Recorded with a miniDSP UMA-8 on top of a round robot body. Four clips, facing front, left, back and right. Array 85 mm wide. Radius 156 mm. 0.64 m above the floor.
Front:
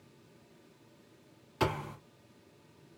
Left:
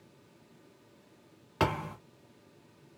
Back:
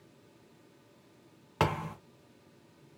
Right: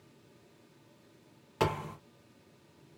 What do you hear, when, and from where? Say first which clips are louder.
1.6 s a thud: left 1 dB, back 2 dB; 165° left, 0.9 m